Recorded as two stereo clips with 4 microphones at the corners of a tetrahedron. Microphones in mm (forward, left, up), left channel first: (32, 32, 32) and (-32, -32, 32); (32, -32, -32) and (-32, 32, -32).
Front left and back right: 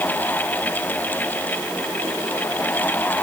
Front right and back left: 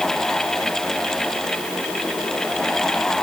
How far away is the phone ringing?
No phone ringing in this recording.